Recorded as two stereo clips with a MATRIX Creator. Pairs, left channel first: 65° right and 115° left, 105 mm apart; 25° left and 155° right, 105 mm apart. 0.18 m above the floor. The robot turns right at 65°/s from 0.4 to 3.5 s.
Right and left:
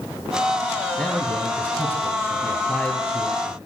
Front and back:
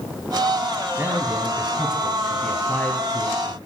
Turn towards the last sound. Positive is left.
turn(degrees=25)